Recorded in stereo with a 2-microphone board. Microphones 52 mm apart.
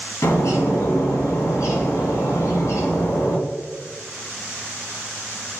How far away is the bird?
About 1.8 m.